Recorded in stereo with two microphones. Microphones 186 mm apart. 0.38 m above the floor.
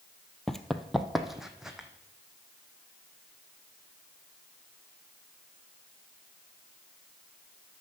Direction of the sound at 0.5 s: Centre (ahead or behind).